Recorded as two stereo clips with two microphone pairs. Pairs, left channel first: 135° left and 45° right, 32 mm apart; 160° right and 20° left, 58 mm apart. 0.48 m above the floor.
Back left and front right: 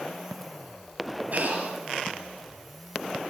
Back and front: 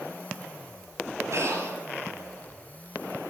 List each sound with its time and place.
1.3 s breathing: 15° right, 6 m